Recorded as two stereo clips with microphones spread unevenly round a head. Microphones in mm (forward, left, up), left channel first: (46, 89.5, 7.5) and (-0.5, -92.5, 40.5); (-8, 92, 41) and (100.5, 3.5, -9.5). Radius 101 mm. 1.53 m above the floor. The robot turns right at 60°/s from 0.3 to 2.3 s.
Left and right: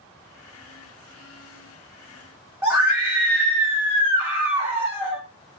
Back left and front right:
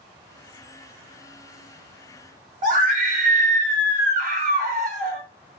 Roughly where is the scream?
Ahead right.